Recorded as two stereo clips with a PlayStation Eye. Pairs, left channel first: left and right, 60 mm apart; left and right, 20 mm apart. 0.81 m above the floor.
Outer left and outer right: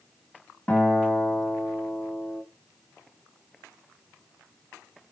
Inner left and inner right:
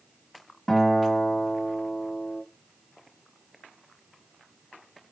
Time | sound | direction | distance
0.7 | a guitar | 25° left (ahead or behind) | 4 m